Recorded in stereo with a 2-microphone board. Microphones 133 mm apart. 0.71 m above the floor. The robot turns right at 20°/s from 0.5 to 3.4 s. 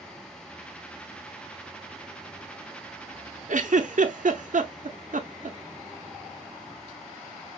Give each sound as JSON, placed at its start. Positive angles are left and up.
{"t": 3.5, "sound": "a giggle", "side_deg": -65, "distance_m": 0.8}